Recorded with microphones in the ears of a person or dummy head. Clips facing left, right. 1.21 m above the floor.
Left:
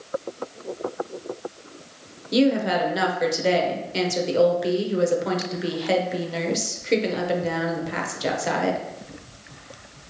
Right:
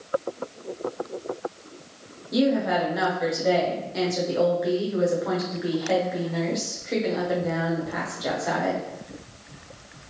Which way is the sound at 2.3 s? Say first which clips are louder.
Left 2 dB; 45° left (ahead or behind).